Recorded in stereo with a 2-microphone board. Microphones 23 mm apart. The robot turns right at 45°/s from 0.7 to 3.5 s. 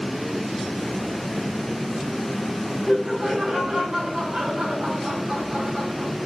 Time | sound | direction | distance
2.9 | laughter | 25° right (ahead or behind) | 4 m